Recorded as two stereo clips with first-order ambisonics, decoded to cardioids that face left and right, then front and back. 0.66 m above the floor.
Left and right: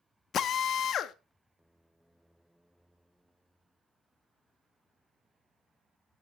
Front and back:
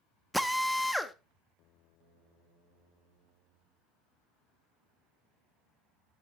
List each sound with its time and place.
0.3 s a drill: 90° left, 0.6 m